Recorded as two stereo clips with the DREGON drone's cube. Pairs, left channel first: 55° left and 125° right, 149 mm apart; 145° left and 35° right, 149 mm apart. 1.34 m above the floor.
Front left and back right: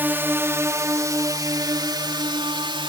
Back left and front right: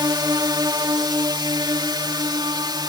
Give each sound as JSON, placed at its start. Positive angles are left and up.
{"t": 0.0, "sound": "a drone", "azimuth_deg": -60}